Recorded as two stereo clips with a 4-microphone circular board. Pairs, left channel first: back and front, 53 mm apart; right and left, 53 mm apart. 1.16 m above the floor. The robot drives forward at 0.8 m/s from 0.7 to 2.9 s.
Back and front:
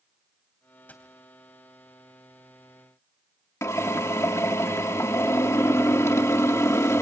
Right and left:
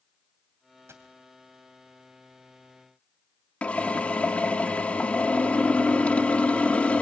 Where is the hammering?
No hammering in this recording.